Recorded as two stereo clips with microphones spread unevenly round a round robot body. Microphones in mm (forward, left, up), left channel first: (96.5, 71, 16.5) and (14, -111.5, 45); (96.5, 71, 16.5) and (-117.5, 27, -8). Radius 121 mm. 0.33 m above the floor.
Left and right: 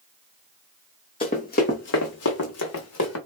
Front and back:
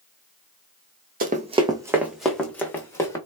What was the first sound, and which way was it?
Running footsteps, 140° left.